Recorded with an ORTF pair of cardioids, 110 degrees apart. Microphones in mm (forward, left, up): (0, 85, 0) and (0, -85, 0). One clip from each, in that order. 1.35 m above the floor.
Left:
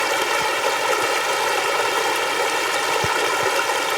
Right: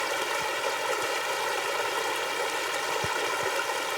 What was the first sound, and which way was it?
Running water, 50° left.